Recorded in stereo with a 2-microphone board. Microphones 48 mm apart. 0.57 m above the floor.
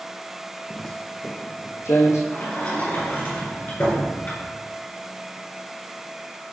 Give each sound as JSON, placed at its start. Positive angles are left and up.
{"t": 0.7, "sound": "footsteps", "side_deg": -5, "distance_m": 0.6}
{"t": 2.3, "sound": "a sliding door", "side_deg": 40, "distance_m": 4.5}